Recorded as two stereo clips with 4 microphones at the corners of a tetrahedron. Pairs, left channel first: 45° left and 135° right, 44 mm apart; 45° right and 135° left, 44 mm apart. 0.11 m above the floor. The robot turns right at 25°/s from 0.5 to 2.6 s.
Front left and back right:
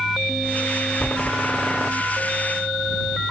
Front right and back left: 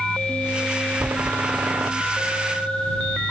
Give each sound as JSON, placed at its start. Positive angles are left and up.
{"t": 1.0, "sound": "a door slam", "azimuth_deg": 105}